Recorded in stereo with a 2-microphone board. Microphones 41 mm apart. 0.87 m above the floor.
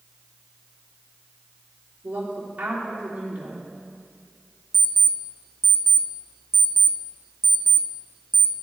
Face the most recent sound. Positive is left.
turn(degrees=-65)  # may be behind; listen again after turning